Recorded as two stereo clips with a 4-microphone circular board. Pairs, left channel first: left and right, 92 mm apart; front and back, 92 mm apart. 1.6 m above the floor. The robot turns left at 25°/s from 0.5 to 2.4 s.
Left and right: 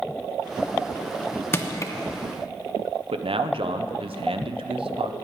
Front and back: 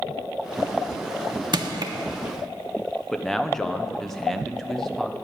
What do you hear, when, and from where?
1.5 s crushing: 150° left, 0.9 m; by 1.9 s 140° left, 0.9 m
3.1 s a man speaking: 90° right, 0.8 m